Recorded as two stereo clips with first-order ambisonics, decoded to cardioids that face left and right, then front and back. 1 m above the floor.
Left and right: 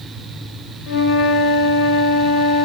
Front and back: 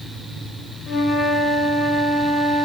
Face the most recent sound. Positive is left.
turn(degrees=65)